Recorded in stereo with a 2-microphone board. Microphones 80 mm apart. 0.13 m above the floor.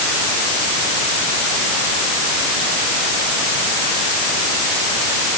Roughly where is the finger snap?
No finger snap in this recording.